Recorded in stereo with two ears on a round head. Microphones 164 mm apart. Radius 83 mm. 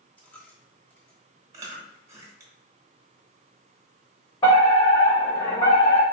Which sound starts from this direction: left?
A fire alarm, at 4.4 s.